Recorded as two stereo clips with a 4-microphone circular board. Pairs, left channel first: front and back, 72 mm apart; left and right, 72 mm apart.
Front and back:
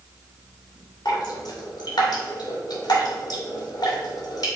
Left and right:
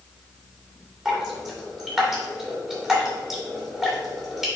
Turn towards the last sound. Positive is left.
turn(degrees=-5)